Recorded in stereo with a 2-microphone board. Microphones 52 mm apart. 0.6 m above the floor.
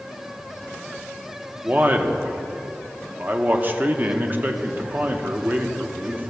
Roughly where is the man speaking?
Right.